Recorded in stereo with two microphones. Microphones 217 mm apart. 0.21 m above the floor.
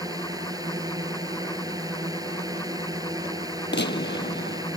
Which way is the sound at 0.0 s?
15° right (ahead or behind).